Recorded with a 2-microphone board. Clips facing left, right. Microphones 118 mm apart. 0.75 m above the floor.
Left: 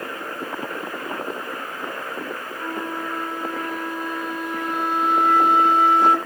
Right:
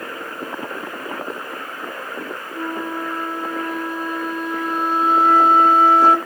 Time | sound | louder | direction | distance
2.5 | a flute | right 4 dB | 30° right (ahead or behind) | 1.4 m